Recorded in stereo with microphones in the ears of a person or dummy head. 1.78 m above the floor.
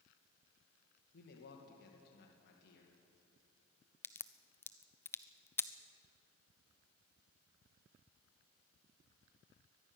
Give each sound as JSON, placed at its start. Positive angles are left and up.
{"t": 1.1, "sound": "a man speaking", "side_deg": 60, "distance_m": 2.0}
{"t": 4.0, "sound": "a crack", "side_deg": 10, "distance_m": 0.6}